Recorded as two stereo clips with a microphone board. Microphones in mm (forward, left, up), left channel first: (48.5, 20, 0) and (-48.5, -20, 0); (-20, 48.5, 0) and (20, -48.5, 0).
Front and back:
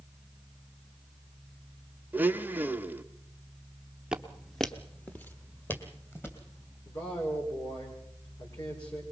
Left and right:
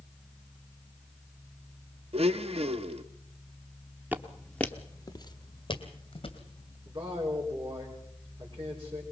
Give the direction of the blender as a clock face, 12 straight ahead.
3 o'clock.